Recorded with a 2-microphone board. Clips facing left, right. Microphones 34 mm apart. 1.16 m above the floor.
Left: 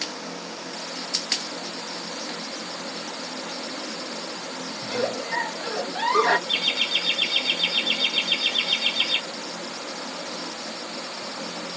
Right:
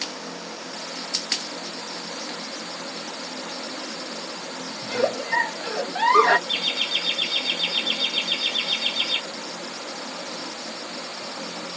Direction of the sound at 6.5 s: 25° left (ahead or behind).